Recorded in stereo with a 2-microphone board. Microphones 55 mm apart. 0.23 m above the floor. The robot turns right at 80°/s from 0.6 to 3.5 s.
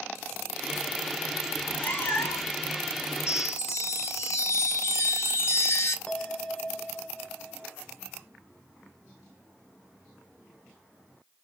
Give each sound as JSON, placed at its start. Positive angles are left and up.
{"t": 1.5, "sound": "a cat meowing", "azimuth_deg": 20, "distance_m": 0.9}
{"t": 3.3, "sound": "a chime", "side_deg": 60, "distance_m": 1.2}
{"t": 6.1, "sound": "a bell", "side_deg": 15, "distance_m": 0.8}